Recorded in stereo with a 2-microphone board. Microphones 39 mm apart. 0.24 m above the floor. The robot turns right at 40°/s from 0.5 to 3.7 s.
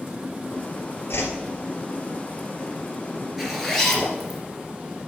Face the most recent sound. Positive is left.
turn(degrees=5)  # may be behind; listen again after turning